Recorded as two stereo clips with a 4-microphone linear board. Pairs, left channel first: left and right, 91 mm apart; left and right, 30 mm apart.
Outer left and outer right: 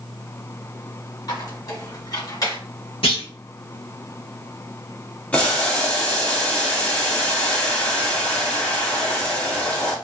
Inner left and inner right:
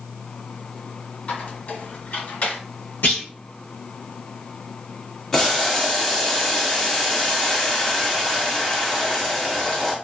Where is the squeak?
50° left (ahead or behind), 2 m.